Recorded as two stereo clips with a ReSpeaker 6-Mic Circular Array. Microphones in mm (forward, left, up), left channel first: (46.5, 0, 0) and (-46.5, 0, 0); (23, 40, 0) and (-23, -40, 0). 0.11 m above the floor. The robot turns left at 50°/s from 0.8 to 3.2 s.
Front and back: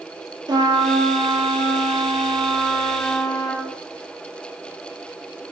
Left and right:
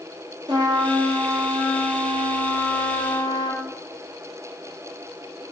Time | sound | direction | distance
0.5 | a trumpet | 150° right | 0.8 m